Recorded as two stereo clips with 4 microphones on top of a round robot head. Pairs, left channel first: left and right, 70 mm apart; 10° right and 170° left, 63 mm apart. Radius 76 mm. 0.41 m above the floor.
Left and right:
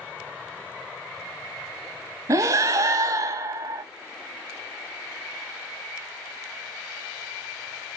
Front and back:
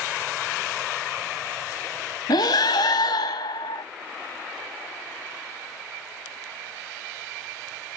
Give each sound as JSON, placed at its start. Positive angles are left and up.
{"t": 2.3, "sound": "breathing", "azimuth_deg": -40, "distance_m": 0.7}